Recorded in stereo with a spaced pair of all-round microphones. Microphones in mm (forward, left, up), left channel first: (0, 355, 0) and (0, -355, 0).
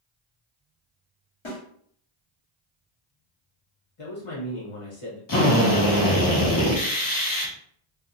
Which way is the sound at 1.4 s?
45° left (ahead or behind).